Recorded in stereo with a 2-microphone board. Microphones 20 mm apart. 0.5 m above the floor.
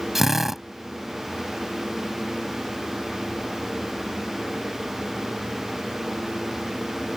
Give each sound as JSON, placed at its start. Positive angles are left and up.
{"t": 0.1, "sound": "a drill", "side_deg": -15}